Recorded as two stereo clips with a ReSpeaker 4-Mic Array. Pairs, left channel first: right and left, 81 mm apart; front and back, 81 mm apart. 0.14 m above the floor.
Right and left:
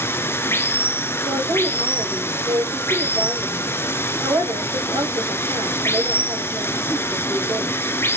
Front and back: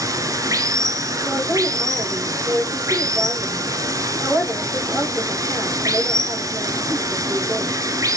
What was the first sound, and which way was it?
Running water, 145° right.